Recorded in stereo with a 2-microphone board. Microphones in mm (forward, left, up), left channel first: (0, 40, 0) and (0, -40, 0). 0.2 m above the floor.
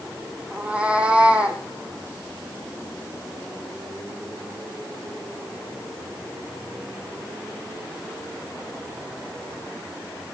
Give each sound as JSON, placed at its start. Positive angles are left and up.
{"t": 0.5, "sound": "a cat meowing", "side_deg": -15, "distance_m": 2.5}